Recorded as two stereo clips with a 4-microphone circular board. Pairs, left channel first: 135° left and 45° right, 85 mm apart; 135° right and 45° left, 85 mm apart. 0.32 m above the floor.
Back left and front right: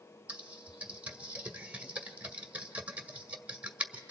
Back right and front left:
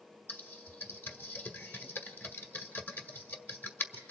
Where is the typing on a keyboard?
100° right, 1.0 m.